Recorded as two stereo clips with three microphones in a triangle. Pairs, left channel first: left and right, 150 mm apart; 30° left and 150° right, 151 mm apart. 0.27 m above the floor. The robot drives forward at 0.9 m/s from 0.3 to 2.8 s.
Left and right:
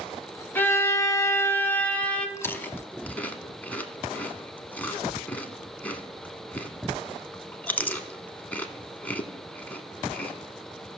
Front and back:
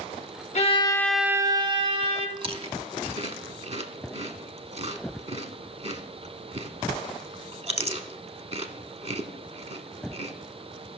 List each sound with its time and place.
0.6 s a violin: 20° left, 0.6 m; by 2.3 s 170° left, 1.2 m
2.4 s chewing: 160° left, 0.5 m; by 10.3 s 170° left, 0.9 m